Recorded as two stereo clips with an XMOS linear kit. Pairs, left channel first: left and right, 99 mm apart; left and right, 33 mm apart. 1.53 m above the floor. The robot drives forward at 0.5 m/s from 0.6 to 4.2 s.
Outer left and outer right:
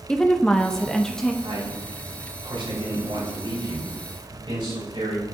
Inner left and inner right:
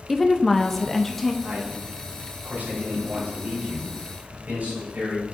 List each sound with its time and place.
0.1 s a woman speaking: 5° left (ahead or behind), 0.6 m
1.4 s a man speaking: 70° right (ahead or behind), 4 m; by 5.2 s 55° right (ahead or behind), 4.5 m